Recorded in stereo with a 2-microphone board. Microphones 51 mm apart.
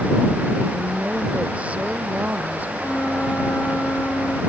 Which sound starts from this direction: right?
A woman speaking, at 0.7 s.